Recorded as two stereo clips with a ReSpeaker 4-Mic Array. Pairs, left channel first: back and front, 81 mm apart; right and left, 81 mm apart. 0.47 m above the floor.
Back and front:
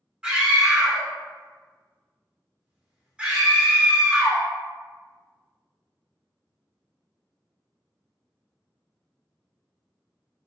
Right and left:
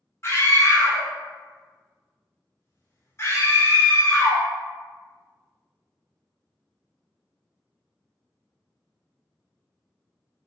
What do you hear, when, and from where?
0.2 s a scream: 65° right, 1.0 m